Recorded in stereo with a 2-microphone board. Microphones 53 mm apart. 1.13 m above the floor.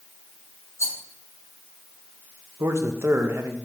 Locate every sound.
0.8 s a rattle: 60° left (ahead or behind), 3.5 m
2.6 s a man speaking: 60° right (ahead or behind), 1.0 m